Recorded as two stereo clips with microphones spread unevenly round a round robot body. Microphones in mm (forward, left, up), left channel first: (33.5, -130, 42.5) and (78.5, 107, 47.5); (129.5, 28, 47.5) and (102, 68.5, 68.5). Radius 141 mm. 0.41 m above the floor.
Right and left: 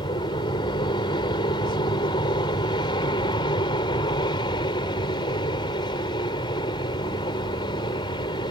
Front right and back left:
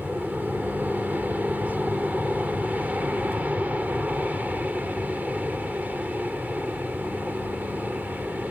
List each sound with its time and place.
0.0 s an aircraft: 160° right